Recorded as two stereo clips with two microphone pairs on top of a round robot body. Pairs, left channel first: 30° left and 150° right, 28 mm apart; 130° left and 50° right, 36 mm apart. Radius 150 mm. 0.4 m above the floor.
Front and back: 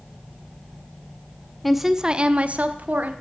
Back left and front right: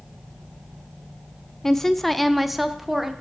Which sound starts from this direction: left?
A woman speaking, at 1.6 s.